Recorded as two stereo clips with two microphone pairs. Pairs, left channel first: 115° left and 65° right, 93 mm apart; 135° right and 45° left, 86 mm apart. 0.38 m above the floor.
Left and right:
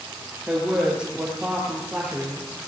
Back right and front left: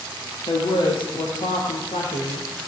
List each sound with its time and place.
0.5 s a woman speaking: 145° right, 7.5 m